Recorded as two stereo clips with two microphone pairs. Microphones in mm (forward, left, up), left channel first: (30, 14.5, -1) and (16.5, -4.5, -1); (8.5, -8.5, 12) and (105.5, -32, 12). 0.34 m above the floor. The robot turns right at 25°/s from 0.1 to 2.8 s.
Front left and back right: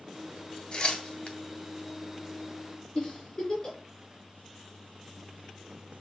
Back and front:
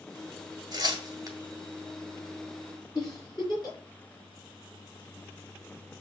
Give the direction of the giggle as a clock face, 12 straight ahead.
8 o'clock.